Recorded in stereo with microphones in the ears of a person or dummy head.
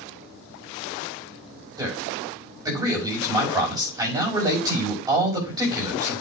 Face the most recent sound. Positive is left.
turn(degrees=-20)  # may be behind; listen again after turning